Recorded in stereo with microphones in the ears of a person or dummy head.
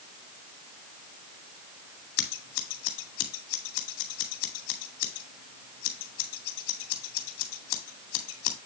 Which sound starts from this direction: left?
Scissors, at 2.2 s.